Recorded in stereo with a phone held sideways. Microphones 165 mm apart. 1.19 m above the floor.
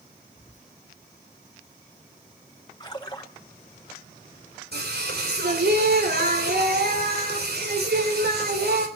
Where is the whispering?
45° left (ahead or behind), 2.5 m.